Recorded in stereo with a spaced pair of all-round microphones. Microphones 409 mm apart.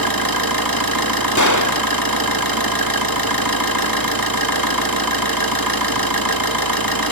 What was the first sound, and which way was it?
An engine running, 55° right (ahead or behind).